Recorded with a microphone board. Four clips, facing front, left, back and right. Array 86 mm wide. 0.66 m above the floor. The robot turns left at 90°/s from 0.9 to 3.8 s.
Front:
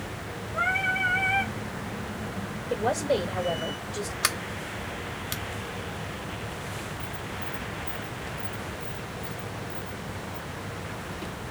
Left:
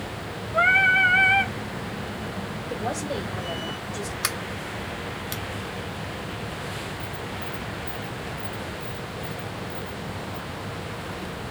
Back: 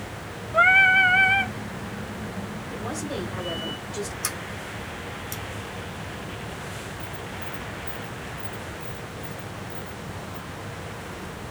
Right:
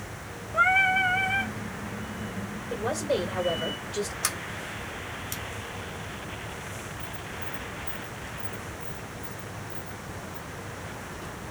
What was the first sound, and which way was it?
Singing, 165° left.